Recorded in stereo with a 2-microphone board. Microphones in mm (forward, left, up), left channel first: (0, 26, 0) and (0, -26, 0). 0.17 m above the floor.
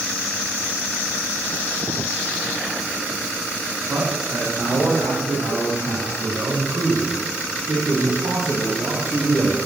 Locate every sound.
3.9 s a man speaking: 65° right (ahead or behind), 8.5 m; by 9.6 s 55° right (ahead or behind), 5.5 m